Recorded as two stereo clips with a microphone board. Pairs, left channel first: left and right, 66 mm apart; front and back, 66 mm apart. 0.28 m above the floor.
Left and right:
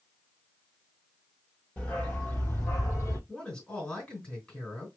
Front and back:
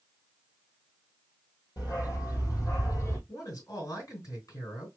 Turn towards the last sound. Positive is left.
turn(degrees=20)